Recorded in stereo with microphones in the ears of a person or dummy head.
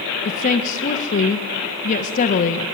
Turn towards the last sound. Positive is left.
turn(degrees=40)  # may be behind; listen again after turning